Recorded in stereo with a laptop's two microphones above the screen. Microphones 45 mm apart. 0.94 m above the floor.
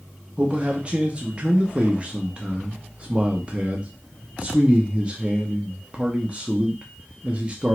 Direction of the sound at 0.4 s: 25° right (ahead or behind).